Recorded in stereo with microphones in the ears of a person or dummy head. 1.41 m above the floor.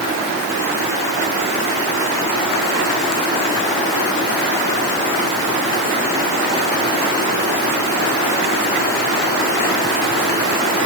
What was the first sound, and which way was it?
Only background noise.